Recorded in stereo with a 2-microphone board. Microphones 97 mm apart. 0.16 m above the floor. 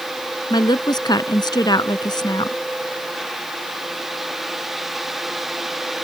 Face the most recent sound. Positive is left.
turn(degrees=50)  # may be behind; listen again after turning